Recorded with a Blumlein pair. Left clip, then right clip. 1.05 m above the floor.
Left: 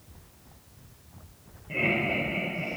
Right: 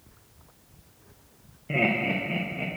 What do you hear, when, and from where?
1.7 s laughter: 35° right, 0.7 m